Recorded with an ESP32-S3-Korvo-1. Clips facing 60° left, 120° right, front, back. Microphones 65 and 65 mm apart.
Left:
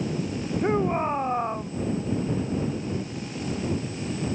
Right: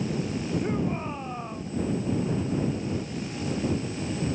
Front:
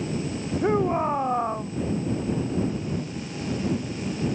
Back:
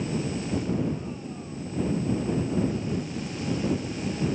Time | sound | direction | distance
0.6 | a shout | 10° left | ?